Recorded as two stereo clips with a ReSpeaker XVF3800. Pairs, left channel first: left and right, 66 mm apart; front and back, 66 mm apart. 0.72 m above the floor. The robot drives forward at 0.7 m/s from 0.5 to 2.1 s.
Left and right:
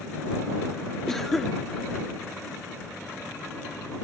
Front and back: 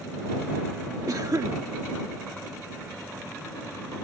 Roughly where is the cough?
Behind.